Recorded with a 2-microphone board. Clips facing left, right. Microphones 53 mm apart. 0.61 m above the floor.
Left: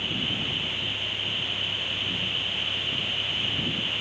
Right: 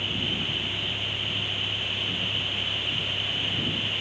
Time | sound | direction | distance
0.0 | a vehicle | 15° right (ahead or behind) | ?